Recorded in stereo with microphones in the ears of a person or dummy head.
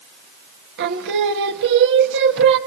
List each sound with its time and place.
0.8 s singing: 65° right (ahead or behind), 1.8 m